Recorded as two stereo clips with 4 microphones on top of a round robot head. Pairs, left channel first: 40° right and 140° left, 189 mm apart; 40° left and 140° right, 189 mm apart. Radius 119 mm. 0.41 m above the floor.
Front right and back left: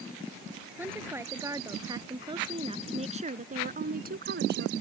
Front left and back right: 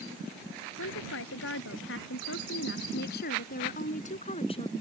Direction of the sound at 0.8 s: 60° left.